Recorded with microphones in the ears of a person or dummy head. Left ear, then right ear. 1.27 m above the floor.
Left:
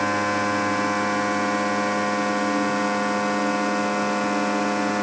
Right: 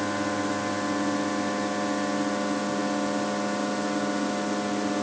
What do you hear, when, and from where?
0.0 s a machine running: 80° left